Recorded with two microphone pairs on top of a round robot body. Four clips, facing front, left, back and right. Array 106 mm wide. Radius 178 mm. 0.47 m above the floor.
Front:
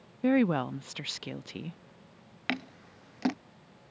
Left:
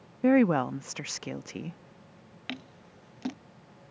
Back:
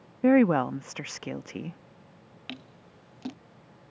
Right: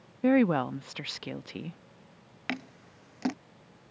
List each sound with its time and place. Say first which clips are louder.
0.2 s a woman speaking: left 1 dB, back 5 dB; 170° left
2.5 s scissors: right 4 dB, front 9 dB; 30° right